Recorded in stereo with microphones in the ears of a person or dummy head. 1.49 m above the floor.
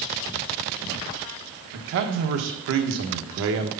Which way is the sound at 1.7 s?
65° right (ahead or behind).